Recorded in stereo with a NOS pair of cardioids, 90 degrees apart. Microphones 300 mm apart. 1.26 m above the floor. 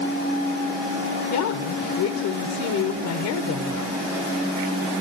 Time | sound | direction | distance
1.3 | a woman speaking | 65° left | 0.9 m